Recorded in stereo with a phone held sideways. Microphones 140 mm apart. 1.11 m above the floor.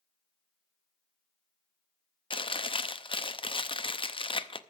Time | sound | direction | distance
2.3 | chewing | 40° left (ahead or behind) | 0.6 m